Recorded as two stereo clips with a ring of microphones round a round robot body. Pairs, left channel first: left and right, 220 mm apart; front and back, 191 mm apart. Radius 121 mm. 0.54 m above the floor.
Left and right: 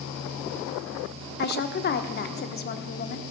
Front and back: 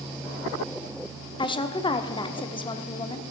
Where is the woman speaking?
60° left, 0.9 m.